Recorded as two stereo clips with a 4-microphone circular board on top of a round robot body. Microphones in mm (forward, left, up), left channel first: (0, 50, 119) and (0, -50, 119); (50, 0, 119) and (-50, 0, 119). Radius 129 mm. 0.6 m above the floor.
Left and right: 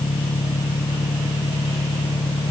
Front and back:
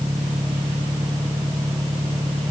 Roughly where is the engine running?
Behind left.